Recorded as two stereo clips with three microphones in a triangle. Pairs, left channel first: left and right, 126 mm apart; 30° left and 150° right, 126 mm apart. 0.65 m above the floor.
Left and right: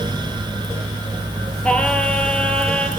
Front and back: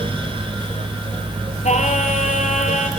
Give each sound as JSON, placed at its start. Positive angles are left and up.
{"t": 1.6, "sound": "singing", "azimuth_deg": 10, "distance_m": 2.5}